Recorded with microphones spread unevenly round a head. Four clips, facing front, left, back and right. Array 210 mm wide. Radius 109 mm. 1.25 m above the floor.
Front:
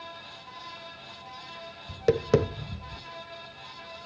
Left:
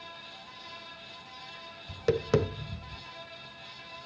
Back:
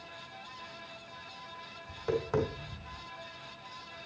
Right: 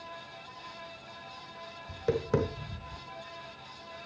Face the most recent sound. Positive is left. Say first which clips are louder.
# left 3 dB, front 8 dB
turn(degrees=20)